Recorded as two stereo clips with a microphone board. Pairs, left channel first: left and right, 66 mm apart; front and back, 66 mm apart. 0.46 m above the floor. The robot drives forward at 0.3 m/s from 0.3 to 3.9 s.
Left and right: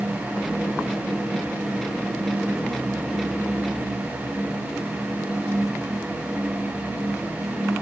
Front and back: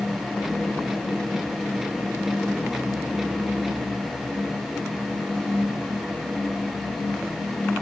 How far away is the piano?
I don't hear a piano.